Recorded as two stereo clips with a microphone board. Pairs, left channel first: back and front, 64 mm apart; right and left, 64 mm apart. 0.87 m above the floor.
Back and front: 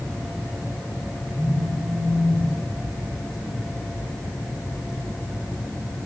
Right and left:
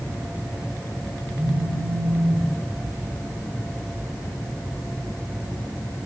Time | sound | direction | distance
1.3 | a phone buzzing | 75° left | 9.5 m